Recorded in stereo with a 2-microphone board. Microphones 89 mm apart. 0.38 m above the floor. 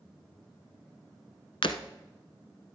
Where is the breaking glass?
85° left, 1.0 m.